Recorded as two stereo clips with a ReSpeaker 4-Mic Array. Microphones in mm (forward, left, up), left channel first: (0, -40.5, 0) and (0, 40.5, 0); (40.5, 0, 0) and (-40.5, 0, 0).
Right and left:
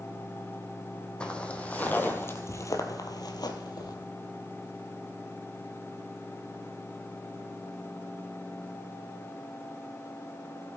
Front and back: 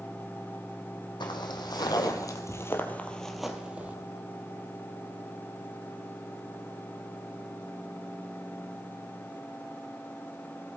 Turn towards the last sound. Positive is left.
turn(degrees=-115)